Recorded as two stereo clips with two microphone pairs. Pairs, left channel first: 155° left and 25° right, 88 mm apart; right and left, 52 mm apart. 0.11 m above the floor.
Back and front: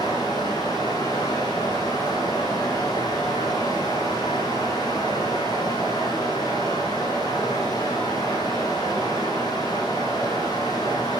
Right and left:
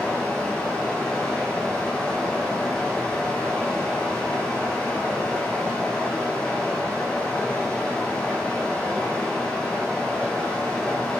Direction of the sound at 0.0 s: 165° right.